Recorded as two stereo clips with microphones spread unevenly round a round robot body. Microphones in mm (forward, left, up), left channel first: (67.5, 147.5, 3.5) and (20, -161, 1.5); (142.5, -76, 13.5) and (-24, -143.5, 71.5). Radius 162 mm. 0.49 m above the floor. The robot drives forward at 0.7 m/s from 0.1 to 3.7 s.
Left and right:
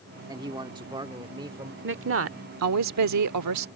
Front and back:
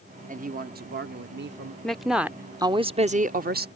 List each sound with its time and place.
0.3 s a man speaking: 155° right; by 1.7 s 170° right
1.8 s a woman speaking: 50° right; by 3.7 s 120° right